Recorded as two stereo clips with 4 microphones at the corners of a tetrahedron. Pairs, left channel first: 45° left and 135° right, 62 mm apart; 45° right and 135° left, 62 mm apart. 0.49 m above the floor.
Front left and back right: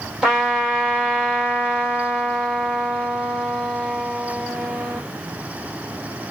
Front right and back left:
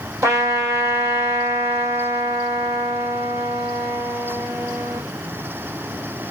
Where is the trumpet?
145° left, 1.8 m.